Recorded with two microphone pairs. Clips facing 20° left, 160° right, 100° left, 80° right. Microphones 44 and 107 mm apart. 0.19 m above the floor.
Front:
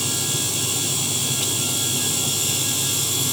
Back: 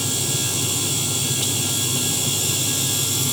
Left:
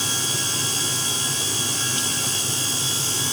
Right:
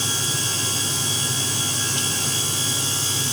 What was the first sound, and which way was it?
Only background noise.